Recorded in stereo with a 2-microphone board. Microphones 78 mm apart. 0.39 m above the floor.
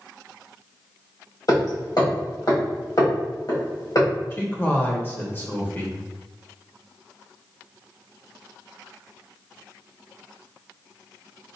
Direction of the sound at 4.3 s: 25° left (ahead or behind).